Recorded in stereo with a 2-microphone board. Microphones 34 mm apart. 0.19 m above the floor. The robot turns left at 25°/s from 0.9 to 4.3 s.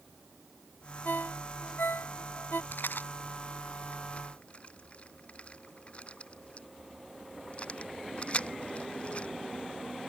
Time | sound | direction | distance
1.1 | a ringtone | 60° left (ahead or behind) | ?
2.7 | a rattle | 75° left (ahead or behind) | ?